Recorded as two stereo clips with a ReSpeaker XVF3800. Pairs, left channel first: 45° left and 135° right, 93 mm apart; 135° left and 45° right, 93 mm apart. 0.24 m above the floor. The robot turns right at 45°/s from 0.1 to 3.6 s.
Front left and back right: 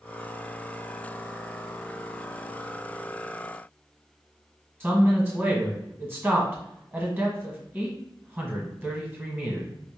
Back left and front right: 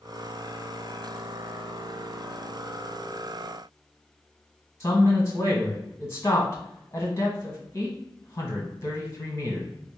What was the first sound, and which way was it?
A man speaking, 170° left.